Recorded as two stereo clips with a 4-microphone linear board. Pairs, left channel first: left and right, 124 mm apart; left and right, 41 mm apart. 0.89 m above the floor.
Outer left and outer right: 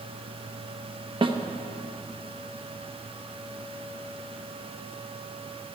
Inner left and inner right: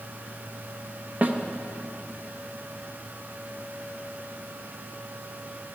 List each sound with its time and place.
1.2 s a snare drum: 40° right (ahead or behind), 0.9 m